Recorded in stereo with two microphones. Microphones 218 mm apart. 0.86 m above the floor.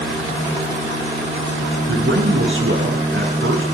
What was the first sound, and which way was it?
A man speaking, 60° right (ahead or behind).